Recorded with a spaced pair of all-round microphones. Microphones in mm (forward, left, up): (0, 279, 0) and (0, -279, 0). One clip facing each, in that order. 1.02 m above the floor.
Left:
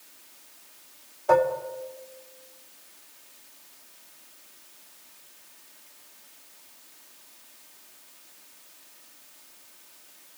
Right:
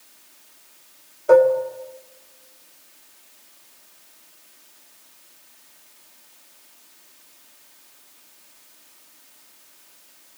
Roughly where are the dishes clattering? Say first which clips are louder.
Right 9 dB; centre.